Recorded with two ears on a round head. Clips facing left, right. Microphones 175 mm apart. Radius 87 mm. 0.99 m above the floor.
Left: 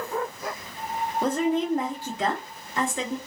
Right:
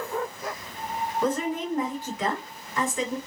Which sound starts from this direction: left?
A woman speaking, at 1.2 s.